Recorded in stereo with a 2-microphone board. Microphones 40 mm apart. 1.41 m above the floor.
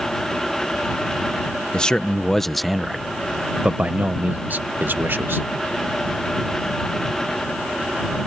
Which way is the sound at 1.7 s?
20° left (ahead or behind).